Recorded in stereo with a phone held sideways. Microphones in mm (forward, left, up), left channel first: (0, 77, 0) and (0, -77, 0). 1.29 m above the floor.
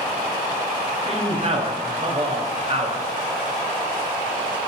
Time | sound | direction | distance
1.1 | a man speaking | 40° right (ahead or behind) | 0.6 m